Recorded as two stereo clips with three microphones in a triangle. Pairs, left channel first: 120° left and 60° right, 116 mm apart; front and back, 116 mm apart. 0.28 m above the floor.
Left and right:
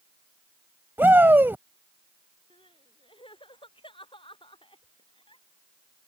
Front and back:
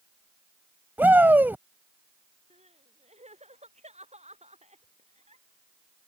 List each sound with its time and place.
1.0 s a shout: 120° right
2.5 s crying: 160° left